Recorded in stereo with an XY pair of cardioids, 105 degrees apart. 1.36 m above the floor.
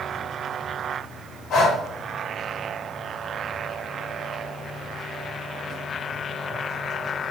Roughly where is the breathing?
Left.